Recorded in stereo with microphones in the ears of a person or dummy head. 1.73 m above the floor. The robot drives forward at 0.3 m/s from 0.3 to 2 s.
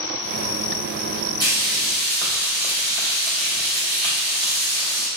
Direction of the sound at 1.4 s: 20° right (ahead or behind).